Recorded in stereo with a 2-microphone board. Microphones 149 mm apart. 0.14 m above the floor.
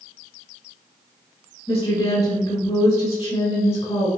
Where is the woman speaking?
35° left (ahead or behind), 1.3 m.